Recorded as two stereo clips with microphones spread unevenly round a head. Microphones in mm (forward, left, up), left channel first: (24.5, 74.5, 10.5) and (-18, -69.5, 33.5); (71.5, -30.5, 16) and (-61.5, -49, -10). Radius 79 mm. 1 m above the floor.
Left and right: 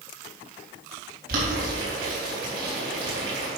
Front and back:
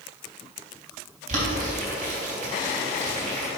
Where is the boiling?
140° right, 3.5 m.